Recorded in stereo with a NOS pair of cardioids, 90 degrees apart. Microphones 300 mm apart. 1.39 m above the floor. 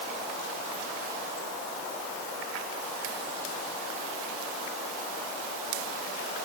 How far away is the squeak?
No squeak in this recording.